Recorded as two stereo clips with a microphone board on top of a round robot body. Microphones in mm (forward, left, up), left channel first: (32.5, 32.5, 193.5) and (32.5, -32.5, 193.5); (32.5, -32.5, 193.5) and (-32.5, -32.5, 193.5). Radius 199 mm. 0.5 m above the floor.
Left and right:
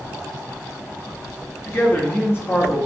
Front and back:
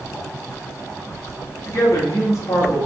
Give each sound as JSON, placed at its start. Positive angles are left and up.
{"t": 1.6, "sound": "a man speaking", "azimuth_deg": 35, "distance_m": 2.0}